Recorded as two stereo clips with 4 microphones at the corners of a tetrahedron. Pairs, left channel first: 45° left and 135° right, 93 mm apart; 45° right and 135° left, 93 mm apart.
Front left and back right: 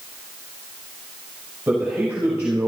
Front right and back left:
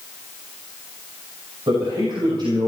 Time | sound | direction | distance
1.7 | a man speaking | 150° left | 4.5 m